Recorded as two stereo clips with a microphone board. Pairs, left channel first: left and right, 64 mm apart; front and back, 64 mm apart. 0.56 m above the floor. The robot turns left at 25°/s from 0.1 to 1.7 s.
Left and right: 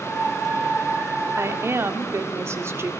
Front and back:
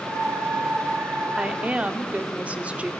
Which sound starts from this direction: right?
A woman speaking, at 1.4 s.